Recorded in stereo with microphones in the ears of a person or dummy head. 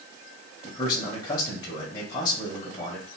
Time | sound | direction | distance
0.6 | a man speaking | 20° left (ahead or behind) | 1.5 m